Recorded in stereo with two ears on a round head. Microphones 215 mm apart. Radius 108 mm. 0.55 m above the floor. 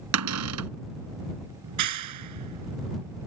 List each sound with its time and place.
0.1 s a cupboard door: 65° right (ahead or behind)
1.6 s a clap: 80° right